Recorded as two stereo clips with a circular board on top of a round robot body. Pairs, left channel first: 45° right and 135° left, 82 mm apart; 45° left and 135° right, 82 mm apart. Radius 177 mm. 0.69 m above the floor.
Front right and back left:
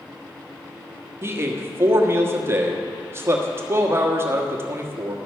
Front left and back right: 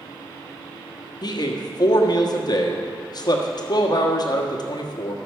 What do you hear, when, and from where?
1.2 s a man speaking: 75° left, 1.5 m